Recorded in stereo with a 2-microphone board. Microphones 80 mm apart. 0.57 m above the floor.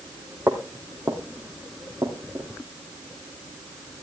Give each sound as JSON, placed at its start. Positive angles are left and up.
{"t": 0.5, "sound": "footsteps", "side_deg": -30, "distance_m": 1.5}